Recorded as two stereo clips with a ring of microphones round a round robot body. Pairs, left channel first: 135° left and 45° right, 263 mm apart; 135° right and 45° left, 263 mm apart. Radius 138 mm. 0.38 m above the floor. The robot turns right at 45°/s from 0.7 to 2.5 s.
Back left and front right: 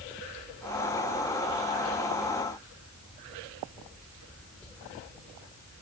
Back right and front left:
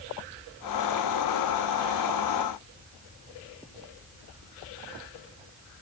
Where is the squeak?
No squeak in this recording.